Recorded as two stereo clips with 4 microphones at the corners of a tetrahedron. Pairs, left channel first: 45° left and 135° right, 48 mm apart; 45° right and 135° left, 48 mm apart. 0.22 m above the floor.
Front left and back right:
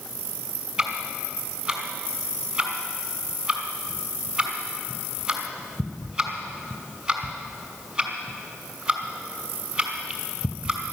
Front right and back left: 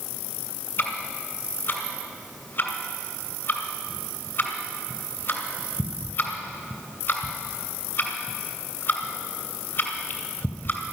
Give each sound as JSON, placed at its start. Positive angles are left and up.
{"t": 0.8, "sound": "ticking", "azimuth_deg": -65, "distance_m": 2.5}